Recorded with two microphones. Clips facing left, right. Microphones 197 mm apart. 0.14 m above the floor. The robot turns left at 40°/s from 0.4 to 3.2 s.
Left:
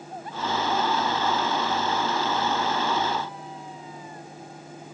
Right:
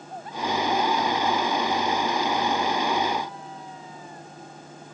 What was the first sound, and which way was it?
Only background noise.